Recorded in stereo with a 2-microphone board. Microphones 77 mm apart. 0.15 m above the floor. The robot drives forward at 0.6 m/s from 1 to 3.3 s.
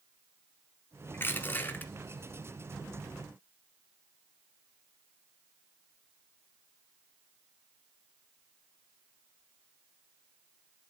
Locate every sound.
1.1 s crushing: 30° left (ahead or behind), 1.0 m; by 1.9 s 25° left (ahead or behind), 1.3 m